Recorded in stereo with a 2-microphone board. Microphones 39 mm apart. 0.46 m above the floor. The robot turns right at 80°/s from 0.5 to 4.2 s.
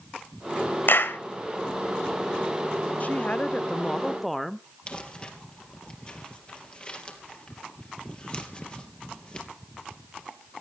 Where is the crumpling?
30° left (ahead or behind), 3.5 m.